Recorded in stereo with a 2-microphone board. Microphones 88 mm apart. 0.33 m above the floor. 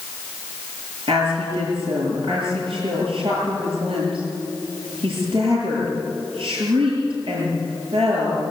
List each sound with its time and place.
1.1 s a woman speaking: 80° right, 7.5 m